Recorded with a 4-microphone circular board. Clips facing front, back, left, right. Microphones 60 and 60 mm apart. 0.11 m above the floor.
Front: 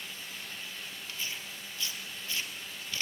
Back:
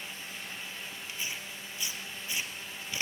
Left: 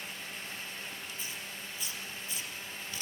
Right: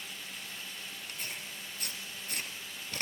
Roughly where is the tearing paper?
Right.